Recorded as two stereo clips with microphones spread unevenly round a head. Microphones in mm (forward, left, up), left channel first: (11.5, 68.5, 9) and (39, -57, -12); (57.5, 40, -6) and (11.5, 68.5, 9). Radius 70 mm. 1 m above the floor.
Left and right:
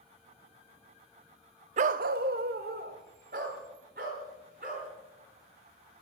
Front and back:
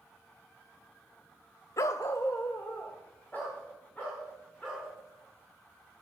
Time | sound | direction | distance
1.8 | a dog barking | 65° right | 0.6 m